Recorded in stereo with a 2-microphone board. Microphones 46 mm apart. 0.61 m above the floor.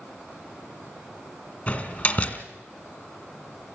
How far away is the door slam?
About 1.6 m.